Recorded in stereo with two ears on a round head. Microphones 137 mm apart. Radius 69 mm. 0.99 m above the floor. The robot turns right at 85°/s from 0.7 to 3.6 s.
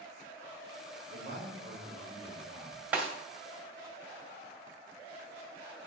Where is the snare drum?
10° right (ahead or behind), 2.5 m; by 3.1 s centre (ahead or behind), 2.5 m.